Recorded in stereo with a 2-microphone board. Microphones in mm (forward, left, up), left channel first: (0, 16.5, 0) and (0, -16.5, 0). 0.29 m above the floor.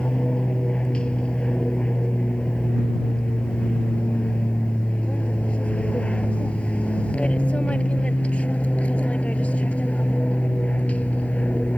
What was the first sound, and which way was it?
An aircraft, 30° left (ahead or behind).